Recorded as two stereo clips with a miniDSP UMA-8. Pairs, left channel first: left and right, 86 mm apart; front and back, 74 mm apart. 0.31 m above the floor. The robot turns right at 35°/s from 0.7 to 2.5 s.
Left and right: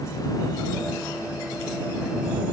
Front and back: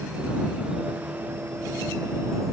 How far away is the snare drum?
I don't hear a snare drum.